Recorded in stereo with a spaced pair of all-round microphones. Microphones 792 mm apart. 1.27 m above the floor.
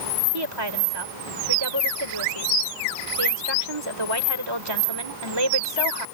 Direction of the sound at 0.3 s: 30° right (ahead or behind).